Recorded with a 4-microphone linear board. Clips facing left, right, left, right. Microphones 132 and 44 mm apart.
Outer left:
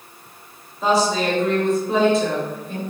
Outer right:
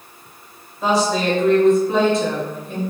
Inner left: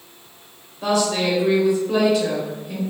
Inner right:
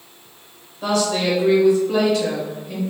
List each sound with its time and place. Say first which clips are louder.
0.8 s a woman speaking: even, even; centre (ahead or behind), 1.0 m